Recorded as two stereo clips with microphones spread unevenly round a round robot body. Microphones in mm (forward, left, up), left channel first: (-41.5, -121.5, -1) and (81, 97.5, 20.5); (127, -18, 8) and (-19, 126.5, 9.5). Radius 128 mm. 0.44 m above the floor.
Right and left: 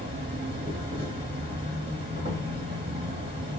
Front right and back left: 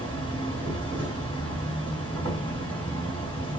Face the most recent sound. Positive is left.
turn(degrees=135)